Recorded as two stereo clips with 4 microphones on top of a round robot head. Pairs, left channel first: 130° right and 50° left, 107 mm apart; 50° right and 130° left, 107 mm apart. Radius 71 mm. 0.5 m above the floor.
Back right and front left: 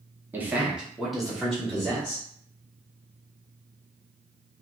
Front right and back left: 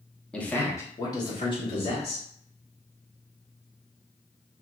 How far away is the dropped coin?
No dropped coin in this recording.